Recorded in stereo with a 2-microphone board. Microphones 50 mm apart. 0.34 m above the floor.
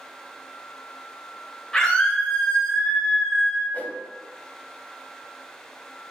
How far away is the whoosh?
About 0.5 m.